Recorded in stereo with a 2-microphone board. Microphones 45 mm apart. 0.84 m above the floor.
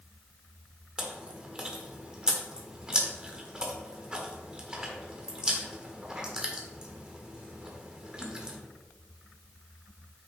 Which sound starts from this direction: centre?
Chewing, at 1.0 s.